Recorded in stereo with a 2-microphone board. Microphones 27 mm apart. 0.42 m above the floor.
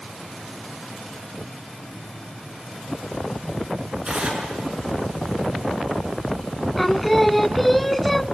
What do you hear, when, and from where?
4.0 s tearing paper: 25° right (ahead or behind), 6.5 m
6.8 s singing: 5° left (ahead or behind), 0.5 m